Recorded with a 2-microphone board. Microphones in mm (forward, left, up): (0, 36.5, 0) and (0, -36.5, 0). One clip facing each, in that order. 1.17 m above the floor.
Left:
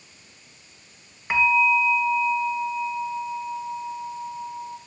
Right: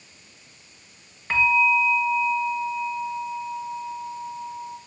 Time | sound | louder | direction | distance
1.3 | a bell | even | 10° left (ahead or behind) | 2.5 m